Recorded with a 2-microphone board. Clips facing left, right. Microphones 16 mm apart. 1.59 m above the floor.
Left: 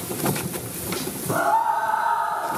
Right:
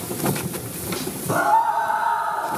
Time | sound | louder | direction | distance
1.3 | a scream | right 2 dB | 15° right (ahead or behind) | 2.5 m